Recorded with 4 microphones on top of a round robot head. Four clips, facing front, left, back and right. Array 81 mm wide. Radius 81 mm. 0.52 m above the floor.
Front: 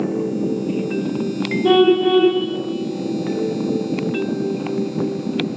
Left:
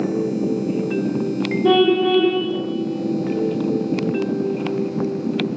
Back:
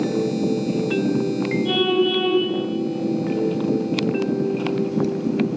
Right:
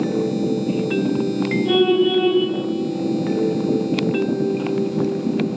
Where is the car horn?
50° left, 8 m.